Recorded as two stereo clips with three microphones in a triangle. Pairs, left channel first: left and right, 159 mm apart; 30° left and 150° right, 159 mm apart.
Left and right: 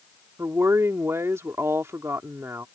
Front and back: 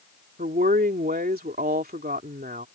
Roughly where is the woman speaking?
Behind.